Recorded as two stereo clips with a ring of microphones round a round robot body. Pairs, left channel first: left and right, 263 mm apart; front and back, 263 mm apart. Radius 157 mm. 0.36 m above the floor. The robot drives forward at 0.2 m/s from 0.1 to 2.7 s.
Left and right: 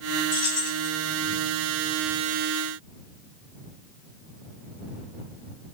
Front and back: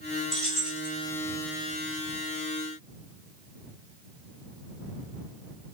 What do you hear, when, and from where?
0.3 s keys jangling: 90° left, 1.2 m; by 0.9 s 95° left, 1.2 m